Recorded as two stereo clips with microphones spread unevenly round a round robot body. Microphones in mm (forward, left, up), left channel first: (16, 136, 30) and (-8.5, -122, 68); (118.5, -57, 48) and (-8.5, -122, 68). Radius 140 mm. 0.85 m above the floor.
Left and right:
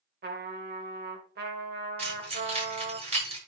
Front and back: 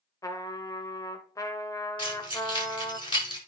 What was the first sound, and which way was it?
A trumpet, 40° right.